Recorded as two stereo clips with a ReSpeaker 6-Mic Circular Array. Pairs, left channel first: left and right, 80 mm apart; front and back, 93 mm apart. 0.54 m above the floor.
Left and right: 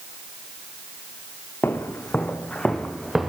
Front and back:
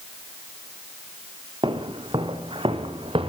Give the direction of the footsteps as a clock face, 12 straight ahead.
7 o'clock.